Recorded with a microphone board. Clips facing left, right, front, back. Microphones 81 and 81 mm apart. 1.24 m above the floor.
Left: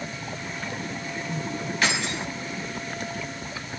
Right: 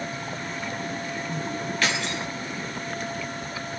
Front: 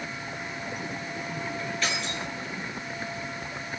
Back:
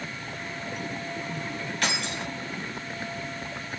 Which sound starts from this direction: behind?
Keys jangling, at 1.8 s.